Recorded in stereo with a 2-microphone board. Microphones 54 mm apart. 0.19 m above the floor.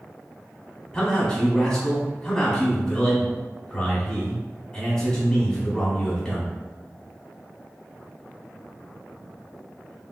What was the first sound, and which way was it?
A man speaking, 15° left (ahead or behind).